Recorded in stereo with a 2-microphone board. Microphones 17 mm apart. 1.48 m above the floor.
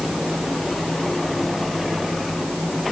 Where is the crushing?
No crushing in this recording.